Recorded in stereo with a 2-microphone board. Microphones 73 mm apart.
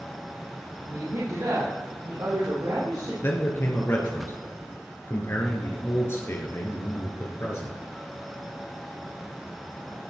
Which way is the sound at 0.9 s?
60° right (ahead or behind).